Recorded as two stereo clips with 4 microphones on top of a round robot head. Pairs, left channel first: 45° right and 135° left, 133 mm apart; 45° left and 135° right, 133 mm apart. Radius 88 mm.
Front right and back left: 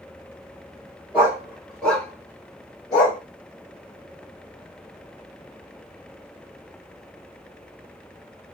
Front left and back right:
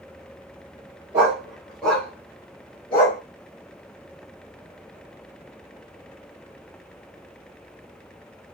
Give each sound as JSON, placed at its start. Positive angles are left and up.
{"t": 1.1, "sound": "a dog barking", "azimuth_deg": -165, "distance_m": 1.1}